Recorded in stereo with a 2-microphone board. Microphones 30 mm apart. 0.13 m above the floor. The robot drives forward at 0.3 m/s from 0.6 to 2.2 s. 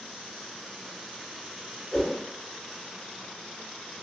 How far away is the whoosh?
About 1.6 m.